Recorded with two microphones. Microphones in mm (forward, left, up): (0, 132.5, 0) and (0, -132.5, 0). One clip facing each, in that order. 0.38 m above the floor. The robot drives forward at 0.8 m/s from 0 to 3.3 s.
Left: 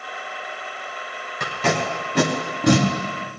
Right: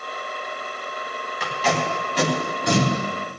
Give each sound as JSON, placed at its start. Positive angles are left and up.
{"t": 1.4, "sound": "tape being pulled", "side_deg": 50, "distance_m": 2.0}